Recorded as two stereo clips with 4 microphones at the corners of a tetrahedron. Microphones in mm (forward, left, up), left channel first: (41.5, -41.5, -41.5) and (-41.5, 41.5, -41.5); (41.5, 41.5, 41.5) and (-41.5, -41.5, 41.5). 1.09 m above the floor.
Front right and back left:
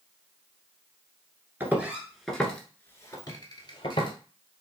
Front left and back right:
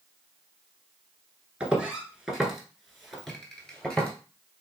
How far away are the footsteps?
About 1.1 m.